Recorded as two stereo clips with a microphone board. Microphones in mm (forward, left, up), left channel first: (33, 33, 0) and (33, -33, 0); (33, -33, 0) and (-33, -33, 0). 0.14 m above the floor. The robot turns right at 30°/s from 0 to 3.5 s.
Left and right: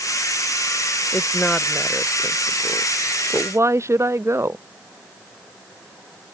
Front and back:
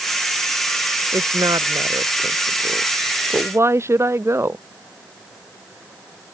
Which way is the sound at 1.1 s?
155° left.